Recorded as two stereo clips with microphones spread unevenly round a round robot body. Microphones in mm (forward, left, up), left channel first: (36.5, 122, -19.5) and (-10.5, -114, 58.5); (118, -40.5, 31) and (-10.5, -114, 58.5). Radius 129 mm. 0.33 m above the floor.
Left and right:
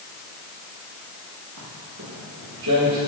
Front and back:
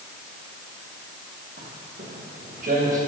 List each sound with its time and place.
1.6 s footsteps: 130° right, 5.5 m; by 3.0 s 120° right, 6.5 m